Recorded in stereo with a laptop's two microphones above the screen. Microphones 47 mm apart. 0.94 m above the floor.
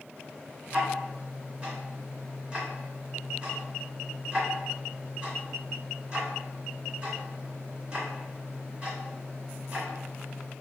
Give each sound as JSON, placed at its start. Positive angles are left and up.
{"t": 0.7, "sound": "ticking", "side_deg": -20, "distance_m": 1.9}